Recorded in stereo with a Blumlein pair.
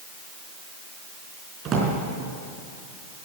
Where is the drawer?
30° right, 4 m.